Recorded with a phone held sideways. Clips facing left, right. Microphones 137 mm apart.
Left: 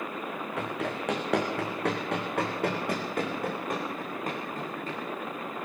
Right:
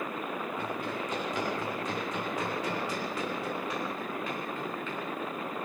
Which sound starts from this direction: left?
Running footsteps, at 0.6 s.